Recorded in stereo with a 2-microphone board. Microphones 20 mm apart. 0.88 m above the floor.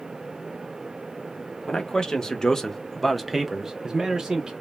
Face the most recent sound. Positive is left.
turn(degrees=-30)  # may be behind; listen again after turning